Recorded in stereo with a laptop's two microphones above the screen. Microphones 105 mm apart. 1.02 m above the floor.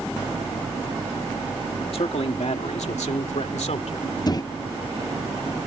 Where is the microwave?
35° left (ahead or behind).